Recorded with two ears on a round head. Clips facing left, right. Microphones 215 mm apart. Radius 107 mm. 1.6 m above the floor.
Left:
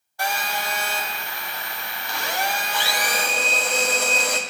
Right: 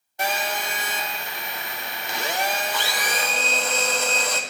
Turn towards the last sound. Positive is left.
turn(degrees=15)  # may be behind; listen again after turning